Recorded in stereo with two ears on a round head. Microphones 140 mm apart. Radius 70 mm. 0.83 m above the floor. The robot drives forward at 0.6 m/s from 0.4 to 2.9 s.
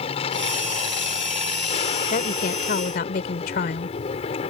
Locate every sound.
0.0 s an aircraft: 40° left (ahead or behind)
2.1 s a woman speaking: 55° left (ahead or behind); by 4.0 s 60° left (ahead or behind)